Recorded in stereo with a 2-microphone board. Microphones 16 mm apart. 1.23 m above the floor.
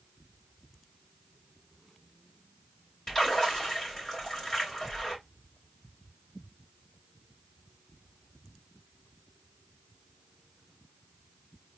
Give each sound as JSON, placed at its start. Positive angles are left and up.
{"t": 3.1, "sound": "a splash", "side_deg": 30, "distance_m": 3.0}